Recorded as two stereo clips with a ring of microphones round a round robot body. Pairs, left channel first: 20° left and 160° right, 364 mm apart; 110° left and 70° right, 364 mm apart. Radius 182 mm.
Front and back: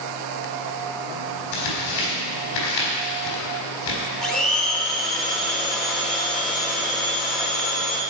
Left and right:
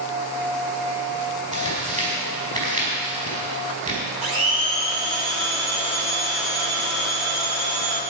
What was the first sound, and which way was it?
Tearing paper, straight ahead.